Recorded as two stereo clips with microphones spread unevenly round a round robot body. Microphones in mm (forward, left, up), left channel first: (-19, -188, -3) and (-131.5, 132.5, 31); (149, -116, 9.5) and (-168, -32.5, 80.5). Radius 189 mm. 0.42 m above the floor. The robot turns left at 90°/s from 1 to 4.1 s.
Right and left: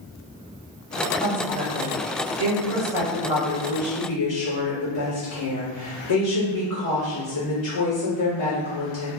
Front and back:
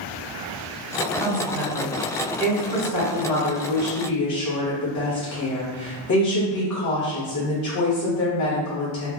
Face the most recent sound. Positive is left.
turn(degrees=-40)